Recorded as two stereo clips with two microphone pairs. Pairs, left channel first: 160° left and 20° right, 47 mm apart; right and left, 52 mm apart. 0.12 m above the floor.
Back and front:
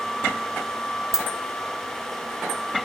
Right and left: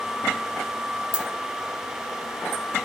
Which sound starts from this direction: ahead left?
A dropped coin, at 1.1 s.